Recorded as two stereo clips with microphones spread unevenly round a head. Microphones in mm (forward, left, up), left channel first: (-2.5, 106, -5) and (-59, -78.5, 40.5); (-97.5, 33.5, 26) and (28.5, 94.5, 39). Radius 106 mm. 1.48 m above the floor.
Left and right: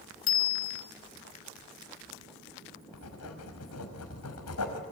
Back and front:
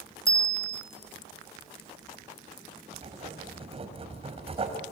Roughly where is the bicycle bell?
Left.